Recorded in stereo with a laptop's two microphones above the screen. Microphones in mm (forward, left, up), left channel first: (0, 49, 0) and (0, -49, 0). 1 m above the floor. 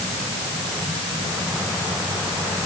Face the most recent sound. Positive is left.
No sound to turn to.